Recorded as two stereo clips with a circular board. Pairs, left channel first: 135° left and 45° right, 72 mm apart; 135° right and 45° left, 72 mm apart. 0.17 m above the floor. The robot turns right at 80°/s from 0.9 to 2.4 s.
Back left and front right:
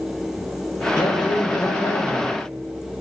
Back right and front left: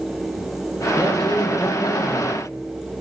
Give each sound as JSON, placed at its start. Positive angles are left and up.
{"t": 1.0, "sound": "a man speaking", "azimuth_deg": 115, "distance_m": 7.5}